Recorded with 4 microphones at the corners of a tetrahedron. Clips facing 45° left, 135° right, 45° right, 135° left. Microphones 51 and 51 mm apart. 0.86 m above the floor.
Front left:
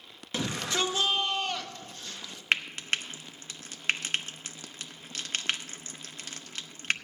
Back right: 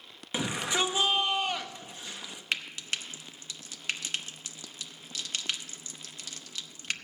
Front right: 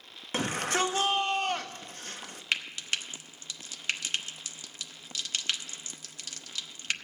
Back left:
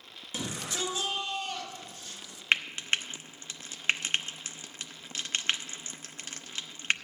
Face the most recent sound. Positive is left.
turn(degrees=85)